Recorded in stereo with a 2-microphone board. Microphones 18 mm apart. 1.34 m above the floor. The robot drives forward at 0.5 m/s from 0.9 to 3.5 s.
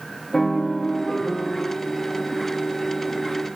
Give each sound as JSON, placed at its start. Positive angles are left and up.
{"t": 0.3, "sound": "a piano", "side_deg": 25, "distance_m": 0.8}